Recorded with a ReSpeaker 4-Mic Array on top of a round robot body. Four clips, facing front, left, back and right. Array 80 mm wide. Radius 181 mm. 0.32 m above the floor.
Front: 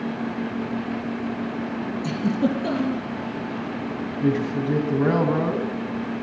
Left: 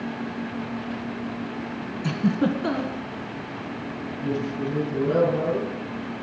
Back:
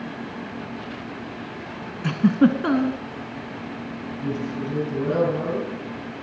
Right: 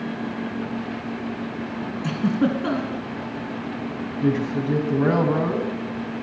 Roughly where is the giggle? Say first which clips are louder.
Right 1 dB, back 6 dB; behind.